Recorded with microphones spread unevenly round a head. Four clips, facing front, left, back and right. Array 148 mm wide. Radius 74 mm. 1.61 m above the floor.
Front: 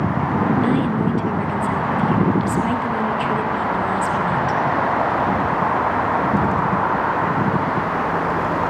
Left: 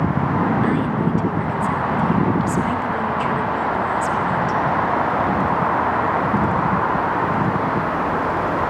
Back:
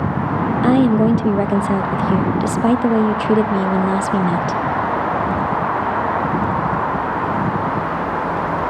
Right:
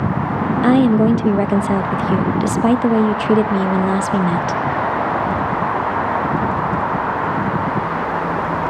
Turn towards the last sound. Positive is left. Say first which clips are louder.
# right 7 dB, back 6 dB
turn(degrees=-130)